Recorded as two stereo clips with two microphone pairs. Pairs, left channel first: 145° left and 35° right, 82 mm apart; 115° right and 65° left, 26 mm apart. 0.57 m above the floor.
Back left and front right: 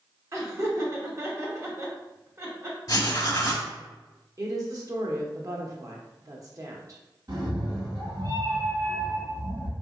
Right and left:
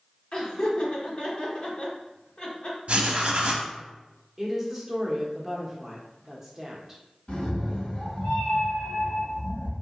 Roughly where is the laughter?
Right.